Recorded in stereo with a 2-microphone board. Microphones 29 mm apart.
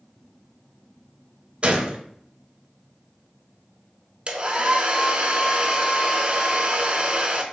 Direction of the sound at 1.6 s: 45° right (ahead or behind).